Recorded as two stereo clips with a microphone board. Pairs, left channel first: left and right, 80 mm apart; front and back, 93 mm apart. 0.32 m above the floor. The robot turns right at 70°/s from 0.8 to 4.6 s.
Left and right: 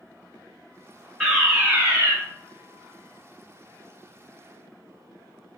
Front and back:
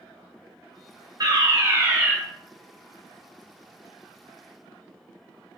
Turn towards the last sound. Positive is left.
turn(degrees=50)